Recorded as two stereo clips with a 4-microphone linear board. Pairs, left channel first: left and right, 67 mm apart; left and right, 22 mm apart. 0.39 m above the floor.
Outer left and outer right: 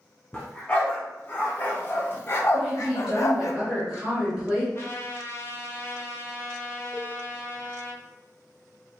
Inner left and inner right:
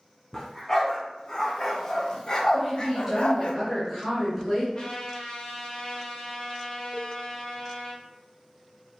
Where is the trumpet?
40° left (ahead or behind), 0.9 m.